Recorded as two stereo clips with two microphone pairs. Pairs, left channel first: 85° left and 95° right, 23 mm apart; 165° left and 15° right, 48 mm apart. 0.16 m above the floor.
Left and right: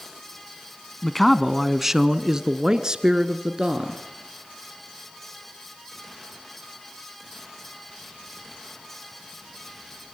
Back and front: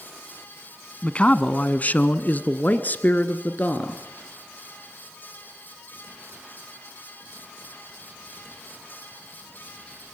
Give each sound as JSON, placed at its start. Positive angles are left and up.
{"t": 1.0, "sound": "a man speaking", "azimuth_deg": 145, "distance_m": 1.0}